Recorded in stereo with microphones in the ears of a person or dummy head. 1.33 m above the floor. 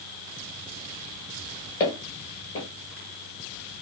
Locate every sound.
1.8 s footsteps: 25° left (ahead or behind), 1.5 m